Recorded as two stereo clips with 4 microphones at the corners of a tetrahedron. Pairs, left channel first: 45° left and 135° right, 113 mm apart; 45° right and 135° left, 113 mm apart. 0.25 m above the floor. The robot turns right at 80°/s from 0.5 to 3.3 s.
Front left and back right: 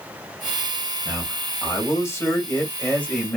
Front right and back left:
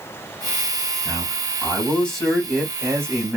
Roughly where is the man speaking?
Ahead right.